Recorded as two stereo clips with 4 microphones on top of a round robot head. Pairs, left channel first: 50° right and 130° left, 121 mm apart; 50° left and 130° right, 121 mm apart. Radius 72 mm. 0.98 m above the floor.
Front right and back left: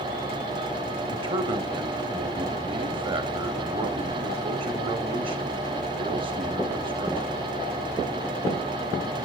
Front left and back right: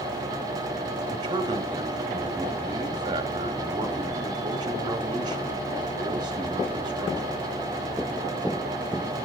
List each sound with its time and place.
1.1 s a man speaking: 175° left, 2.5 m